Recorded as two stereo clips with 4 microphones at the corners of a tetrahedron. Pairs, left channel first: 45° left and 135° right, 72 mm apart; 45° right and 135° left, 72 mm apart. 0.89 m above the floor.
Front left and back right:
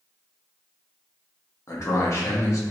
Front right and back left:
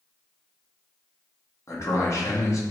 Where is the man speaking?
Straight ahead, 0.9 m.